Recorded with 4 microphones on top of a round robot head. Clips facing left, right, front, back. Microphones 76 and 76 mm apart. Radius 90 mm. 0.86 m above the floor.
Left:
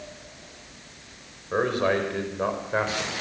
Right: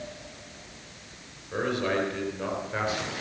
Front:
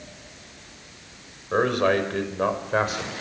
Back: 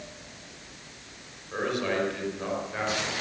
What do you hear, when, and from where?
1.5 s a man speaking: 35° left, 5.5 m; by 3.1 s 30° left, 4.5 m